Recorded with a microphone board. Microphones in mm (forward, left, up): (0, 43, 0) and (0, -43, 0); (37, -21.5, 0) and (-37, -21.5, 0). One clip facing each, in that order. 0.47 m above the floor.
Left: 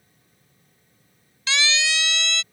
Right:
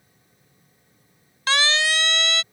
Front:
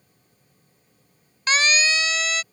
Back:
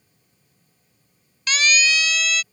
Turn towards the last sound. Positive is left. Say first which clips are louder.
# right 3 dB, even
turn(degrees=-55)